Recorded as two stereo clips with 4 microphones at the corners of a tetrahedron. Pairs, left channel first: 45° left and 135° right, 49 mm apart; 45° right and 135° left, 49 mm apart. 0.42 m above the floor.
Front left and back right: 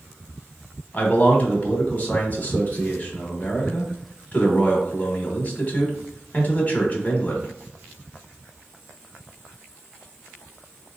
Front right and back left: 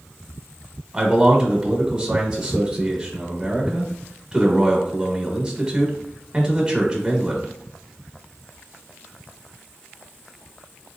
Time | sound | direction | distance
0.9 | a man speaking | 75° left | 1.0 m